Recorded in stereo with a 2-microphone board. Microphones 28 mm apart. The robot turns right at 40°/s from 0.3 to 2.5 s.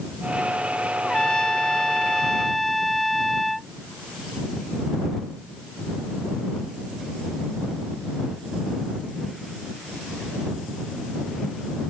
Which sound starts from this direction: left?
A trumpet, at 1.0 s.